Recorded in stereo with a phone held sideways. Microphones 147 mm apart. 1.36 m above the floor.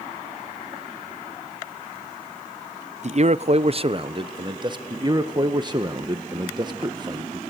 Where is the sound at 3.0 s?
50° right (ahead or behind), 0.5 m; by 4.8 s 30° right (ahead or behind), 1.2 m.